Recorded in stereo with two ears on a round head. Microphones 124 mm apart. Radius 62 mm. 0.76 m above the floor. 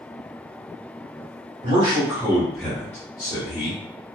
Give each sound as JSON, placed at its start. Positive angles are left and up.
{"t": 1.6, "sound": "a man speaking", "side_deg": -40, "distance_m": 1.5}